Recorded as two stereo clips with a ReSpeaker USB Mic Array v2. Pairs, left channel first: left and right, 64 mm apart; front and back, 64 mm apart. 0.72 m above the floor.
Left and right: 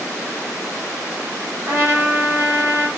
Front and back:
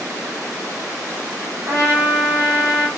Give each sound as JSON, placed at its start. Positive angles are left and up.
{"t": 1.7, "sound": "a trumpet", "azimuth_deg": -135, "distance_m": 1.0}